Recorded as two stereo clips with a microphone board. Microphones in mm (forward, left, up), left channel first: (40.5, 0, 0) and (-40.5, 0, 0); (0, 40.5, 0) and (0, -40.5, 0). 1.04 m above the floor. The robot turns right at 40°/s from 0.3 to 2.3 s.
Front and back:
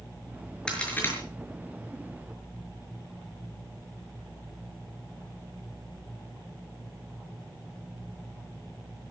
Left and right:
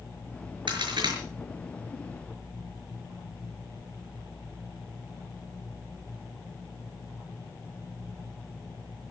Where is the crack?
80° right, 6 m; by 1.2 s 60° right, 6 m.